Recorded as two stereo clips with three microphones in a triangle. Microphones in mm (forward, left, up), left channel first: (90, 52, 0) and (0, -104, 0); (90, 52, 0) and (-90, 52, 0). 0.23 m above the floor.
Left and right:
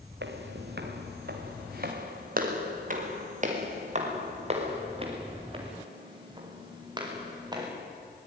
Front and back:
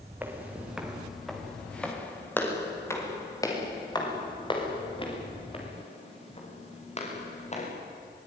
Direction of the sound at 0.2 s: 100° right.